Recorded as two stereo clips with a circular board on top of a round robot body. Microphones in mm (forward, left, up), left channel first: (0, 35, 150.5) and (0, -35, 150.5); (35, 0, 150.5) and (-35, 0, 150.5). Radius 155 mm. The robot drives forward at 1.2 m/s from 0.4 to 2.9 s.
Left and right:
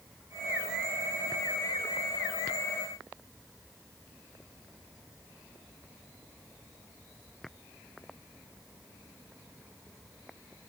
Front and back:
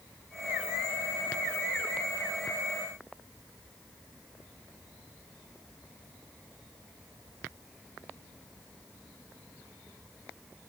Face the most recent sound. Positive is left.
No sound to turn to.